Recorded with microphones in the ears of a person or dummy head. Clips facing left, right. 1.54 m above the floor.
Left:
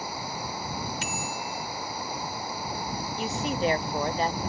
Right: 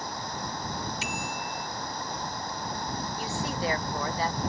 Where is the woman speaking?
20° left (ahead or behind).